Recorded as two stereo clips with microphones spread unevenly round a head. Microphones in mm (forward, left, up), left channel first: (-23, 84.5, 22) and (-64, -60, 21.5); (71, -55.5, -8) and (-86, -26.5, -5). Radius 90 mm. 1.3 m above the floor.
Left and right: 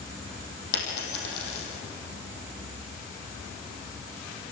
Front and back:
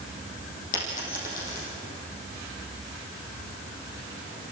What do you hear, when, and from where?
0.7 s a dropped coin: 40° left, 4.5 m